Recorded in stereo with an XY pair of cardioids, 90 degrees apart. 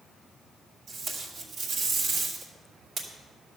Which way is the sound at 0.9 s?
65° right.